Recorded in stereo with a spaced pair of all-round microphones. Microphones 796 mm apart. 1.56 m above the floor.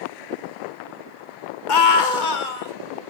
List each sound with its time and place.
1.7 s a scream: 70° left (ahead or behind), 1.1 m; by 2.7 s 75° left (ahead or behind), 2.0 m